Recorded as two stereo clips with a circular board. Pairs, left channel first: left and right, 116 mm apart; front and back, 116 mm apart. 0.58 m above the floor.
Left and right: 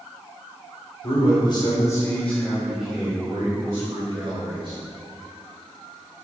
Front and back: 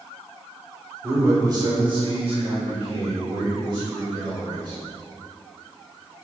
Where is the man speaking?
115° left, 2.5 m; by 4.8 s 140° right, 4 m.